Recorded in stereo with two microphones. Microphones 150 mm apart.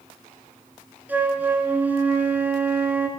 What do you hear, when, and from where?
1.1 s a flute: 10° right (ahead or behind), 1.2 m